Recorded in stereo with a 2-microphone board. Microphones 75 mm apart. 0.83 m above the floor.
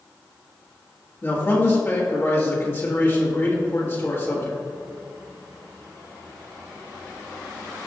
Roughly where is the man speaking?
Left.